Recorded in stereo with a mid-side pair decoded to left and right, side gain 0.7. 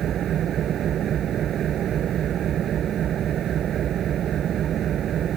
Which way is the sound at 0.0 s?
45° right.